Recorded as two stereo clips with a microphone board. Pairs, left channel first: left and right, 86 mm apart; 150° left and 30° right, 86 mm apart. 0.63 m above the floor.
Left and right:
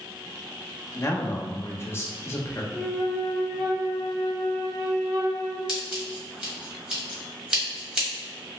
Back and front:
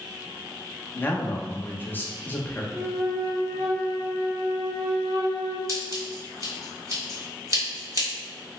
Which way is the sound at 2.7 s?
5° left.